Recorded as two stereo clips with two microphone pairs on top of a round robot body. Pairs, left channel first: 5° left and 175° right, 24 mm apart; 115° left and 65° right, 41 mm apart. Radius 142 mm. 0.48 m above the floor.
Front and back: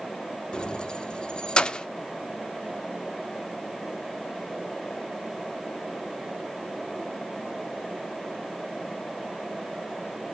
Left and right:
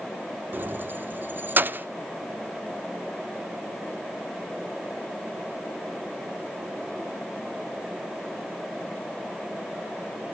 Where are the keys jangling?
40° right, 1.0 m.